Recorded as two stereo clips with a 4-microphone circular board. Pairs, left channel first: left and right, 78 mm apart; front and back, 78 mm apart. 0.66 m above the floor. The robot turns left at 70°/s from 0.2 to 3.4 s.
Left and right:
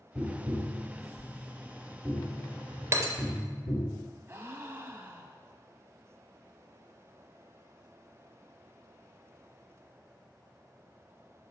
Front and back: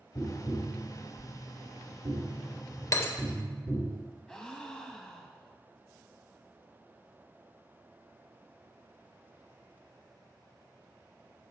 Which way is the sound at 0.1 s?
45° right.